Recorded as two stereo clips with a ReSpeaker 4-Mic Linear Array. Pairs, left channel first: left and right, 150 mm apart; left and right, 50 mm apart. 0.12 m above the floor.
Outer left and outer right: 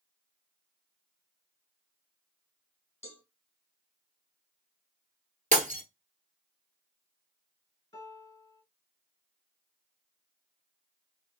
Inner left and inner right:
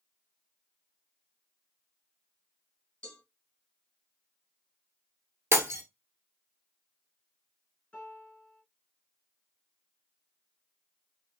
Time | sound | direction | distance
3.0 | a cowbell | 15° left (ahead or behind) | 1.3 m
5.5 | breaking glass | 55° right (ahead or behind) | 1.0 m
7.9 | a piano | 25° left (ahead or behind) | 1.3 m